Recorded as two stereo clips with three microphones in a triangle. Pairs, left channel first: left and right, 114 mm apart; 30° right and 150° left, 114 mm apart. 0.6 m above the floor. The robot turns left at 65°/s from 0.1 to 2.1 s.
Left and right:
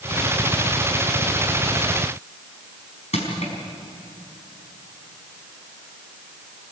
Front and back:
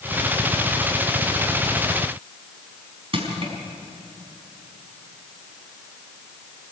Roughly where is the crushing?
Left.